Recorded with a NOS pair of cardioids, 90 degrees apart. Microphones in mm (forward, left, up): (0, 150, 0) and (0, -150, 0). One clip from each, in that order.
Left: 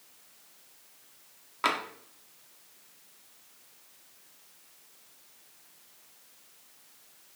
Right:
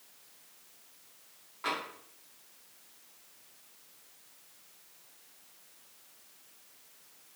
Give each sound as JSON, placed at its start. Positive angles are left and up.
{"t": 1.6, "sound": "tapping", "azimuth_deg": 55, "distance_m": 0.6}